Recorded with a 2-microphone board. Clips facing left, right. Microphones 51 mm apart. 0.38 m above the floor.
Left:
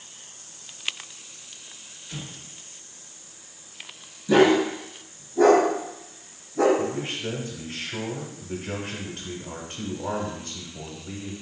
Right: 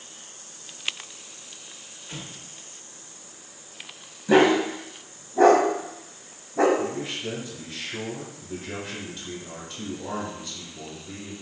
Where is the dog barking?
40° right (ahead or behind), 0.8 m.